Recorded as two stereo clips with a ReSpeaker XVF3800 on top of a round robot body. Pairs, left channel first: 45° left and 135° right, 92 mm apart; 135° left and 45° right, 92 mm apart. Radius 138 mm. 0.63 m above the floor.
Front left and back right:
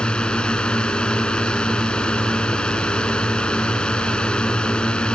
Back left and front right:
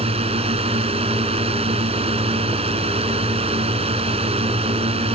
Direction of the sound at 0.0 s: 35° right.